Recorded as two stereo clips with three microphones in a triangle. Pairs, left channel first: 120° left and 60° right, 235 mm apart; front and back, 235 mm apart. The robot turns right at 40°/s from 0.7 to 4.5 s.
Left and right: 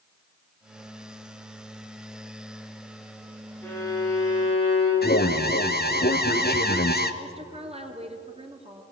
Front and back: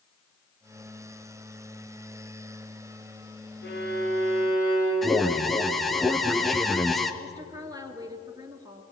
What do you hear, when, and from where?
3.6 s a violin: 40° left, 8 m; by 4.9 s 75° left, 8 m
5.0 s an alarm: 90° left, 1.1 m
7.2 s a woman speaking: 110° right, 2 m